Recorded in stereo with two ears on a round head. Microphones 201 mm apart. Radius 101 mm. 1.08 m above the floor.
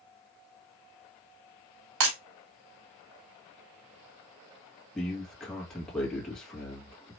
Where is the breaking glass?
65° right (ahead or behind), 2.5 m.